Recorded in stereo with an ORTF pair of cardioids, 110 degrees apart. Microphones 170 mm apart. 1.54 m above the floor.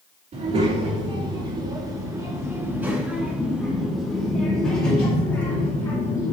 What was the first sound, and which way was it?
A child speaking, 45° right.